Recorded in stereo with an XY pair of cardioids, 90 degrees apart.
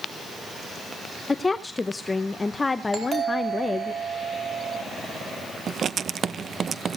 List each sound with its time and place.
1.3 s a woman speaking: 25° left, 0.8 m
2.9 s a doorbell: 50° right, 4.5 m
5.7 s writing: 55° right, 0.6 m